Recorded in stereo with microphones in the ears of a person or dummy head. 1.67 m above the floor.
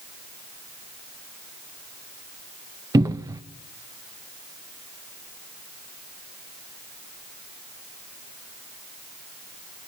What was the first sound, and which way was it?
A cupboard door, 20° right (ahead or behind).